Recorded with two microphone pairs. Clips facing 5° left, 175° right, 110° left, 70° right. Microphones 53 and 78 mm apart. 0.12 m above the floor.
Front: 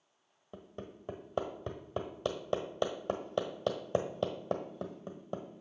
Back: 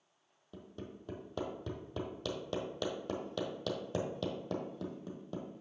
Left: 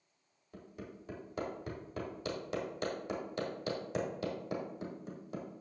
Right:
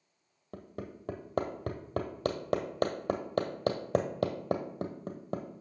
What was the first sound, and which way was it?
Hammering, 55° right.